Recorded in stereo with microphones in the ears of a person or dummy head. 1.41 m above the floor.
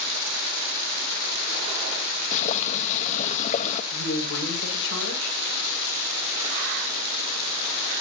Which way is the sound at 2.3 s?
40° left (ahead or behind).